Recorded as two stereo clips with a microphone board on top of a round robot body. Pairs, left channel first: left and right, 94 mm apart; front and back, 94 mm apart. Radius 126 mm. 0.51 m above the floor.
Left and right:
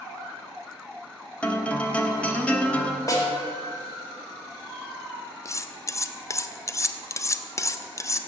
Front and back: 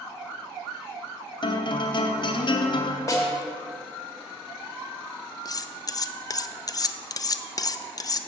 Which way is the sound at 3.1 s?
45° left.